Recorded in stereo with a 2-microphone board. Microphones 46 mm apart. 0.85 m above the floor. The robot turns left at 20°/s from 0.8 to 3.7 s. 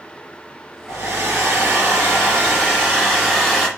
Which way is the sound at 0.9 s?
125° right.